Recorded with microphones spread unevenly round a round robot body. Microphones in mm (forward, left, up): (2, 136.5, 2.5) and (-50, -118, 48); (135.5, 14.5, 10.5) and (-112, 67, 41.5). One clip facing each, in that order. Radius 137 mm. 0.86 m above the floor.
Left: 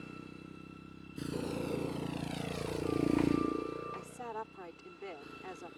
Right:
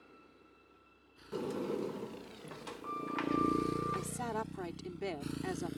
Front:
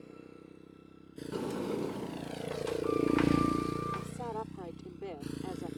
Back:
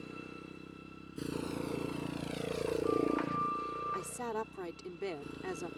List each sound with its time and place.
0.0 s a motorcycle: 100° left; by 5.8 s 75° right
1.3 s a sliding door: 30° right
3.9 s a woman speaking: 135° right